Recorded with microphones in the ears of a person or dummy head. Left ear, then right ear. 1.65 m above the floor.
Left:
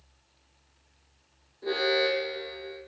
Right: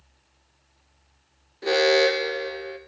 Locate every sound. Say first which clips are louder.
1.6 s an alarm: right 7 dB; 70° right (ahead or behind), 0.6 m